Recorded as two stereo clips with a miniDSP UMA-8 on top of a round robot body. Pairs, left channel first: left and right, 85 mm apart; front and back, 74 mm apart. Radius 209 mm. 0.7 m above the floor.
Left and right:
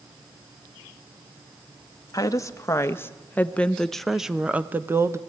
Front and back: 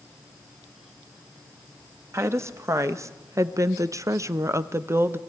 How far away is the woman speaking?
About 1.6 m.